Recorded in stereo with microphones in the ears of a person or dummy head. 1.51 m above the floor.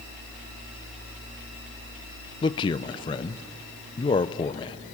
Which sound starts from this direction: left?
A man speaking, at 2.4 s.